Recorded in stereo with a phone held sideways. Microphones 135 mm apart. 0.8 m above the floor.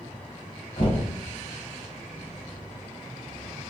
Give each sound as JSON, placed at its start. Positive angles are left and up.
{"t": 0.8, "sound": "knocking", "side_deg": 50, "distance_m": 2.5}